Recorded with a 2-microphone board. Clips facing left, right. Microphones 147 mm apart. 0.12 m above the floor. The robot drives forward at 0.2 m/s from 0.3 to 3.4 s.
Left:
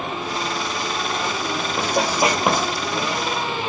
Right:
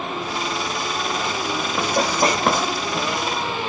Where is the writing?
5° left (ahead or behind), 0.8 m; by 2.7 s 10° left (ahead or behind), 0.7 m.